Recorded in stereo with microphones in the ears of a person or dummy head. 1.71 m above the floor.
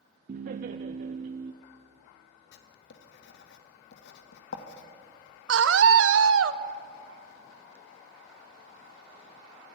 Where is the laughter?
50° right (ahead or behind), 0.7 m.